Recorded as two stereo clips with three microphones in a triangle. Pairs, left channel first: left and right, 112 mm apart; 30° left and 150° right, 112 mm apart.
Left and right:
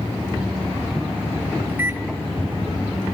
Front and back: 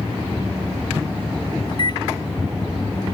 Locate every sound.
1.7 s a microwave: 20° right, 0.7 m